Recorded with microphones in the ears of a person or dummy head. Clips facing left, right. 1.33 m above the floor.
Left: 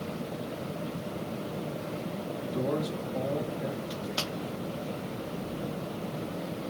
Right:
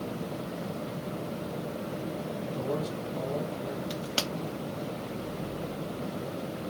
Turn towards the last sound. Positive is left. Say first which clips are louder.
# right 1 dB
turn(degrees=-30)  # may be behind; listen again after turning